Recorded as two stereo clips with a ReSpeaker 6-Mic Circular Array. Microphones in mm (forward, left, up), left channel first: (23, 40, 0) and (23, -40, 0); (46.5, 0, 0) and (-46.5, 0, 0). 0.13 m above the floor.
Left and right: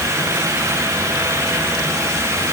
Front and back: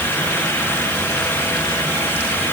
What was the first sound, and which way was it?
Only background noise.